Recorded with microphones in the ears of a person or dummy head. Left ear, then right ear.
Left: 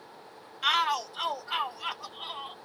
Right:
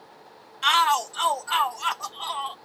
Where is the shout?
25° right (ahead or behind); by 2.6 s 40° right (ahead or behind).